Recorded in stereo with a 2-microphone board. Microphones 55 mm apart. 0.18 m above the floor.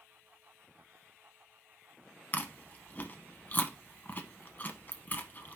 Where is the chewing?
30° left (ahead or behind), 0.6 m.